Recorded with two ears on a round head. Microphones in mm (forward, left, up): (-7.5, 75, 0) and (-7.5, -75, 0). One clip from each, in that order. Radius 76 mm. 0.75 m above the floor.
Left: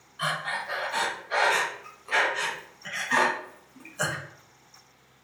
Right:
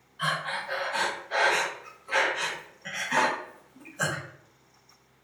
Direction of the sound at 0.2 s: 25° left (ahead or behind).